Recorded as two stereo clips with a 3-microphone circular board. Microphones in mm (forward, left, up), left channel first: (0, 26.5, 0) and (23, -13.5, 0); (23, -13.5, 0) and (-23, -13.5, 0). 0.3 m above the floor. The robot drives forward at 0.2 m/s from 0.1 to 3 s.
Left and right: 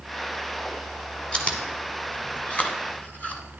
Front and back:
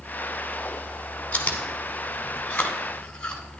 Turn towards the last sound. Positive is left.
turn(degrees=65)